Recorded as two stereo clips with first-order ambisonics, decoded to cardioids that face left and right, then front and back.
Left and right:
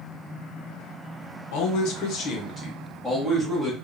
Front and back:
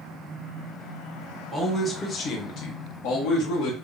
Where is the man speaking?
95° left, 0.8 m; by 3.8 s 10° right, 1.3 m.